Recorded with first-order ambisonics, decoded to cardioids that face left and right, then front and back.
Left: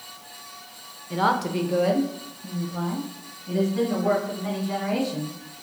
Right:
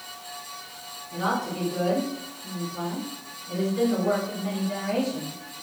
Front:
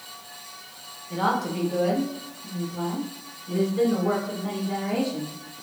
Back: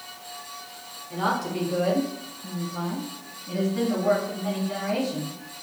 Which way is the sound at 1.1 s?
75° left.